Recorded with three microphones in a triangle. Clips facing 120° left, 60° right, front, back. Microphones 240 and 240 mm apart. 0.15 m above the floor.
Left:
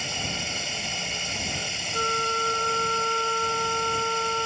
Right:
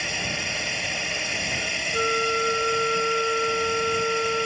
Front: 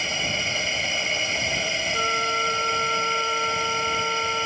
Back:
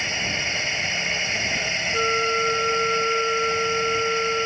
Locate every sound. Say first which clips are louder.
0.0 s a drone: right 2 dB, front 1 dB; 50° right
1.9 s a flute: right 5 dB, back 10 dB; 125° right